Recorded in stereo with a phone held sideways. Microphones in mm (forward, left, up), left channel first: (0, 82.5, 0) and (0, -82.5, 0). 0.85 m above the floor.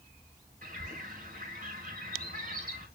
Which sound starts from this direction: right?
A bird, at 0.6 s.